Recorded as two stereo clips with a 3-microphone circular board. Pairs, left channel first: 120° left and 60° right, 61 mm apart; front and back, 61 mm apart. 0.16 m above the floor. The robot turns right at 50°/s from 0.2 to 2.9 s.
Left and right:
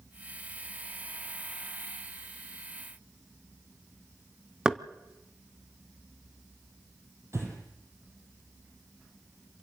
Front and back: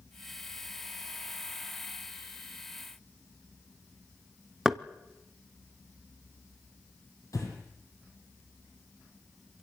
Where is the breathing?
20° right, 5 m.